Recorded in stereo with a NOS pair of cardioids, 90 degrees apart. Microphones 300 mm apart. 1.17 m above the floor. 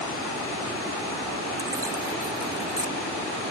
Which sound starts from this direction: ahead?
Keys jangling, at 1.6 s.